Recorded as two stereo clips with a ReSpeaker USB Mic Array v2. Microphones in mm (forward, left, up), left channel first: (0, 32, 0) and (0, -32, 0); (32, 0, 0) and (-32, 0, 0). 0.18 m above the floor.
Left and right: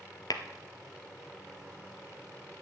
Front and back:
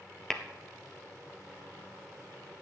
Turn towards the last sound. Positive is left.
turn(degrees=80)